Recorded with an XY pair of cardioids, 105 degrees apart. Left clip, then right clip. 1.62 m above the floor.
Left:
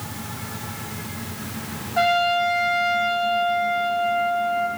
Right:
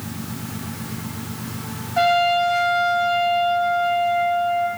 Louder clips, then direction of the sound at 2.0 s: Right 2 dB; 5° right.